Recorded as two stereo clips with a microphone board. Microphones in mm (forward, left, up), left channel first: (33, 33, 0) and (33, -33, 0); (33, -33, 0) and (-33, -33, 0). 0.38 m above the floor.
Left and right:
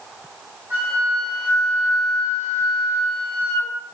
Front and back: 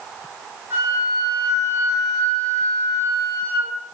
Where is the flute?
135° right, 1.6 m.